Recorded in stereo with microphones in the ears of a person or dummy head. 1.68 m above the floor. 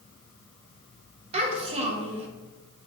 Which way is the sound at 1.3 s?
35° right (ahead or behind).